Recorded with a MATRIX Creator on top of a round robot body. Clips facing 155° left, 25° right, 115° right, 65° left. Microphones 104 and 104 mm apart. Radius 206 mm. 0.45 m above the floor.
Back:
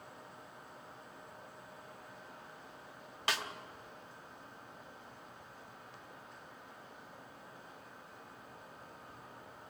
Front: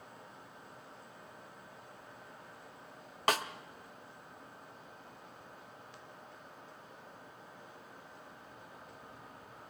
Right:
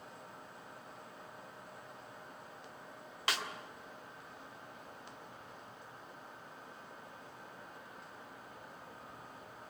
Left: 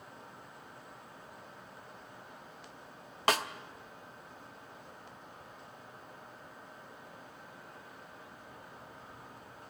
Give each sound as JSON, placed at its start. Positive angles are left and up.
{"t": 3.3, "sound": "a snare drum", "azimuth_deg": 25, "distance_m": 1.1}